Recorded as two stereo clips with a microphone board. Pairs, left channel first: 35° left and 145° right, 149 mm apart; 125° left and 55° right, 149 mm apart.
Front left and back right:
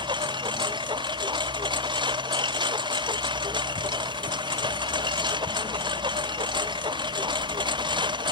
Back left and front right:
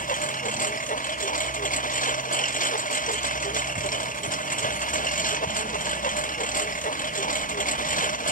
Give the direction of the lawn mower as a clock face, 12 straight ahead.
7 o'clock.